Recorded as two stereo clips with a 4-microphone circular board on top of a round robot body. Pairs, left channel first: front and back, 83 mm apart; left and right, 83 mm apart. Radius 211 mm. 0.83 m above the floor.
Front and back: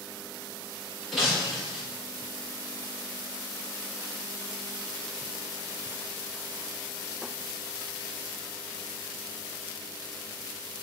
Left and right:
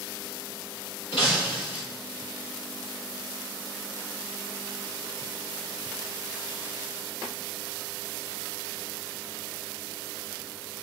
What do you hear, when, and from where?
1.1 s breaking glass: 85° left, 7.5 m